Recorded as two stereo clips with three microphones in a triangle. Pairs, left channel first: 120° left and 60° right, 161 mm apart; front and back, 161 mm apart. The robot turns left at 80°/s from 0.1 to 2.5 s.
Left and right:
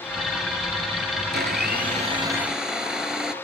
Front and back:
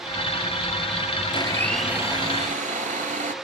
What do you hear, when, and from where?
1.3 s a blender: 50° right, 0.5 m; by 3.4 s 145° right, 0.5 m